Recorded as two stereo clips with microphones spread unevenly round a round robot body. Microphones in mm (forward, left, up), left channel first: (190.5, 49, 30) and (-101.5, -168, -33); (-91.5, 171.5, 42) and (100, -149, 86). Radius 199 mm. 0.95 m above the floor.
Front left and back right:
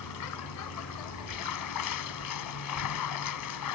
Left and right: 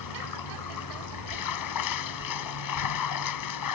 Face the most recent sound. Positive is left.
turn(degrees=85)